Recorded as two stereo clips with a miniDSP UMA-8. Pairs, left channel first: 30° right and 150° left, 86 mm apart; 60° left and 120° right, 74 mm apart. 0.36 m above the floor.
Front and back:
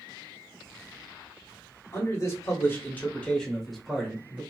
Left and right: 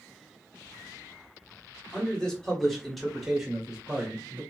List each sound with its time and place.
1.9 s a man speaking: 15° right, 1.5 m; by 4.4 s 160° right, 1.2 m